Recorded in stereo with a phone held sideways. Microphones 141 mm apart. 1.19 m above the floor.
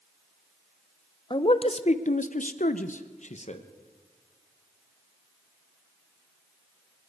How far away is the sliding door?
No sliding door in this recording.